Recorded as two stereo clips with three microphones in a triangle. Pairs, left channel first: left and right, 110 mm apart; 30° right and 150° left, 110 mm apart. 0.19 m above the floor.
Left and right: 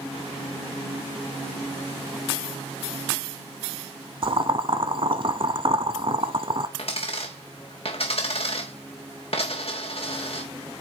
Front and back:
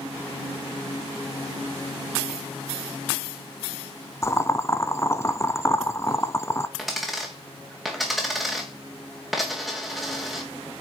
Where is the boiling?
85° right, 0.7 m.